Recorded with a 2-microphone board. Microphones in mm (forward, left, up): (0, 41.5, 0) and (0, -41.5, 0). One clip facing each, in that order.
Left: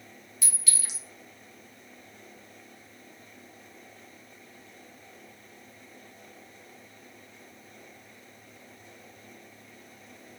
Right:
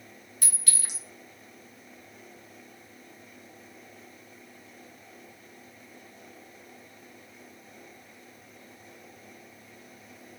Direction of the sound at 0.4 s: 50° right (ahead or behind).